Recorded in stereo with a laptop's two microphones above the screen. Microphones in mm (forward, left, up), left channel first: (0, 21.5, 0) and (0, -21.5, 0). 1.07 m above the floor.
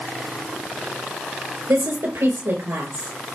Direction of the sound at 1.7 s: 85° right.